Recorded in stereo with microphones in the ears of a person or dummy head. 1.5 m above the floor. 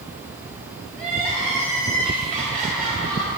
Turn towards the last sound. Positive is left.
turn(degrees=-45)  # may be behind; listen again after turning